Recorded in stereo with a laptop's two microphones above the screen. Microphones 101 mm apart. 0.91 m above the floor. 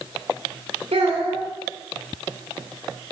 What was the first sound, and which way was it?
A child speaking, 75° right (ahead or behind).